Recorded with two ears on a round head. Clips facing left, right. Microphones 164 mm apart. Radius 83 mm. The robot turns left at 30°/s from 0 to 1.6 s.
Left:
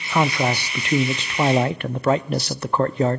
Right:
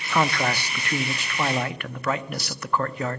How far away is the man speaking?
About 0.7 m.